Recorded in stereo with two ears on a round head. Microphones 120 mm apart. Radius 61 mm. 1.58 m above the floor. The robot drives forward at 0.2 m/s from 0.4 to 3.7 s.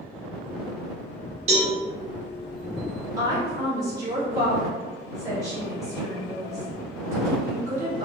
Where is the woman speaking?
25° right (ahead or behind), 1.2 m.